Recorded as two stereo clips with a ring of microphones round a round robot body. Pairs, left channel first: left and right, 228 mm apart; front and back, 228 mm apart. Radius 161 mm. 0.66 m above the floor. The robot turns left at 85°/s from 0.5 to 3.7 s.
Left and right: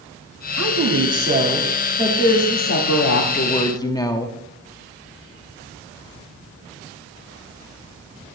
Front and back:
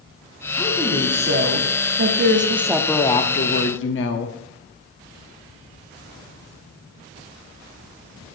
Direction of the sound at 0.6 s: 75° right.